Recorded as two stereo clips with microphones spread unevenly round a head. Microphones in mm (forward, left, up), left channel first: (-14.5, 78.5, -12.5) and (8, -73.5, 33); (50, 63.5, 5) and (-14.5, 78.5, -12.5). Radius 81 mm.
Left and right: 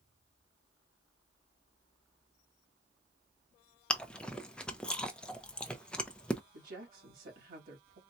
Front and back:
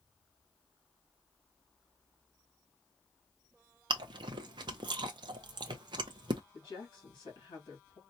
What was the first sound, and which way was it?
Chewing, straight behind.